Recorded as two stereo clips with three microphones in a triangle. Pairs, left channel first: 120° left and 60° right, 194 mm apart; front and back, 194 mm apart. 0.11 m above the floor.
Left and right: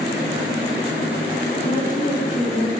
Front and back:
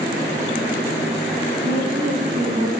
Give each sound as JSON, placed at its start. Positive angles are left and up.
{"t": 1.6, "sound": "a woman speaking", "azimuth_deg": 170, "distance_m": 8.5}